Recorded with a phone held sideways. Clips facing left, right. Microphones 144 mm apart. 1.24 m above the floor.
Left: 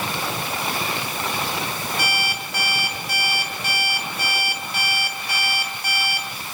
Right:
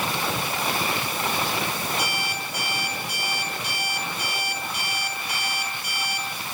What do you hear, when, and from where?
2.0 s an alarm clock: 80° left, 4 m